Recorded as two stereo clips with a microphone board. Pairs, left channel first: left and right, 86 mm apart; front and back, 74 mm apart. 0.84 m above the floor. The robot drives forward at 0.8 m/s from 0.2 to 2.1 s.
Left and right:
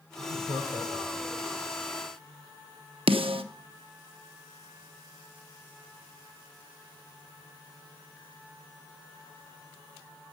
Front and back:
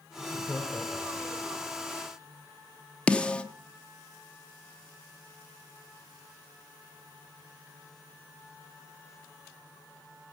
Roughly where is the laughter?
Right.